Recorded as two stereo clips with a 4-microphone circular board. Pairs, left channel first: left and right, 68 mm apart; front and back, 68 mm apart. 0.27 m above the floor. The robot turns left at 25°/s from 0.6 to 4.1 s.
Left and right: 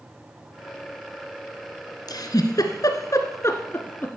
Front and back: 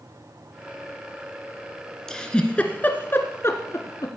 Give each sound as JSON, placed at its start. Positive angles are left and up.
{"t": 2.1, "sound": "a giggle", "azimuth_deg": 85, "distance_m": 1.4}